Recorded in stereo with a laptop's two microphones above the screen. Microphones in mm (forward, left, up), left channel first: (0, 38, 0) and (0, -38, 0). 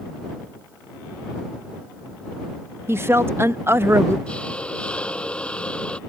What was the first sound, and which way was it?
A woman speaking, 35° right (ahead or behind).